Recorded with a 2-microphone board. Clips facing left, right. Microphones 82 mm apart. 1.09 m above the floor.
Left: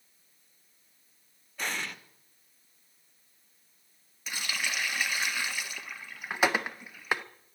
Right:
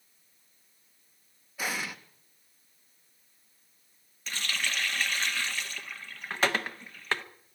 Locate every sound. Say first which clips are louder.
1.6 s an explosion: right 1 dB; 5° right (ahead or behind), 0.8 m
4.3 s a running tap: right 1 dB; 10° left (ahead or behind), 0.6 m